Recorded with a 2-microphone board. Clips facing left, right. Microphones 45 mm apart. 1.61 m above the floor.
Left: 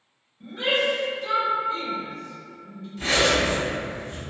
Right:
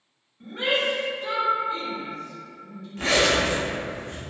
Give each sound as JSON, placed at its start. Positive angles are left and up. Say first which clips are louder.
{"t": 0.4, "sound": "a shout", "louder": "left 1 dB", "side_deg": -55, "distance_m": 1.7}
{"t": 3.0, "sound": "a zipper", "louder": "even", "side_deg": -50, "distance_m": 0.6}